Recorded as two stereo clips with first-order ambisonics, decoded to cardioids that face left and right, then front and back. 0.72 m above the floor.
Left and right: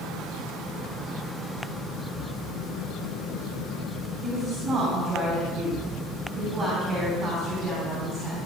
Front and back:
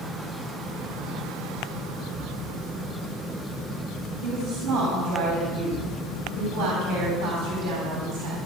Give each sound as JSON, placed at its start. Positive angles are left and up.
{"t": 4.2, "sound": "a woman speaking", "azimuth_deg": 180, "distance_m": 4.0}